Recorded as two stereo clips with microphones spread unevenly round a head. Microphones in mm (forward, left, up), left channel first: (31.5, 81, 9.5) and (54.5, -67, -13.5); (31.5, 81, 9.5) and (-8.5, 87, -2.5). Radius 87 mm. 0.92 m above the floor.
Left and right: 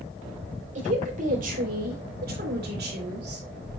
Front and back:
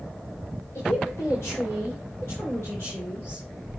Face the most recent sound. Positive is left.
turn(degrees=-85)